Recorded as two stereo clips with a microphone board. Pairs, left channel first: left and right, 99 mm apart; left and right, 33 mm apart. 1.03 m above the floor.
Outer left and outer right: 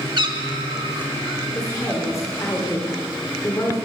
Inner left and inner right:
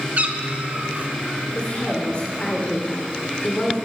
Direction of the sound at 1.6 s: 30° left (ahead or behind).